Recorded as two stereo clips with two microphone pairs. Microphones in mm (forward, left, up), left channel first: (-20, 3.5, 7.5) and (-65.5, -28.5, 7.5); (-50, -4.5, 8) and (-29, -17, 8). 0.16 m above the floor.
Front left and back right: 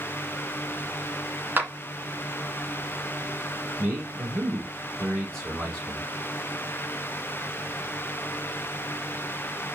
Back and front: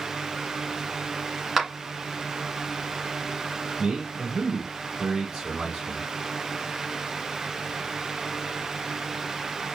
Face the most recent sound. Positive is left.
turn(degrees=-100)